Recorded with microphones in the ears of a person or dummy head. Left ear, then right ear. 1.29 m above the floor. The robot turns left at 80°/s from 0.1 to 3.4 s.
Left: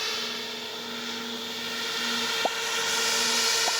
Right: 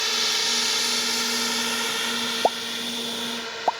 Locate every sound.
0.0 s a drone: 20° right (ahead or behind); by 3.8 s 80° left
2.4 s a pop: 65° right (ahead or behind); by 3.8 s 35° right (ahead or behind)